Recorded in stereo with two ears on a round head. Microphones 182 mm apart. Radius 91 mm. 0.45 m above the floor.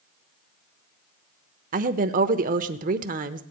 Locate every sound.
1.7 s a woman speaking: 40° right (ahead or behind), 0.9 m